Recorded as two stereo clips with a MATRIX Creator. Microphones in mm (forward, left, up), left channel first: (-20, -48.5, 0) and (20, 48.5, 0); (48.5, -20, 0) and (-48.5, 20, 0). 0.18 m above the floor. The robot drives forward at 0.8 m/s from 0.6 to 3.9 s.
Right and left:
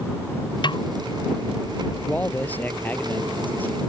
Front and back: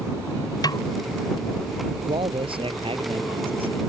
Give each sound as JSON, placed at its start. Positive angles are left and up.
{"t": 0.6, "sound": "a snare drum", "azimuth_deg": -70}
{"t": 2.0, "sound": "a man speaking", "azimuth_deg": 175}